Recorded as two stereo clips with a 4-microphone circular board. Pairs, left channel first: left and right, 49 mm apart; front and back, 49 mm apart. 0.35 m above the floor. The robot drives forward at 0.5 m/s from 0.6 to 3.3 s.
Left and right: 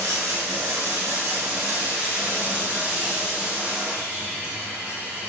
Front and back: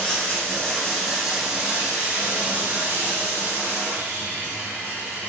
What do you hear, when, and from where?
0.0 s running water: 75° right, 0.8 m; by 5.3 s 145° right, 1.4 m